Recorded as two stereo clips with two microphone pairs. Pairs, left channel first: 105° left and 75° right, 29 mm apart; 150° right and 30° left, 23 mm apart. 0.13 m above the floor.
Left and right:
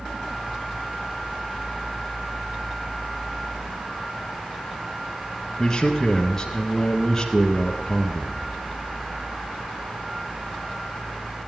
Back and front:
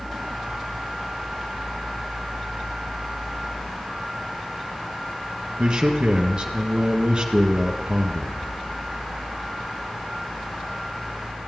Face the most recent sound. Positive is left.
turn(degrees=45)